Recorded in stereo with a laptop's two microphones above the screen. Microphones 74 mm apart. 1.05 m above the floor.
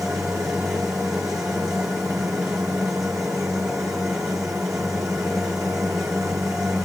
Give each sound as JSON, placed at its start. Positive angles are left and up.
{"t": 0.0, "sound": "a machine running", "side_deg": -45, "distance_m": 1.7}